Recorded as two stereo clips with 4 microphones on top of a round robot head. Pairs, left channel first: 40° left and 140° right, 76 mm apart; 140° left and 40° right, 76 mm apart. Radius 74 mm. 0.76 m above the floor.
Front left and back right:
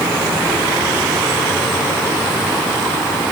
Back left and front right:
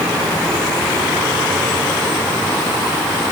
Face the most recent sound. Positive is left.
No sound to turn to.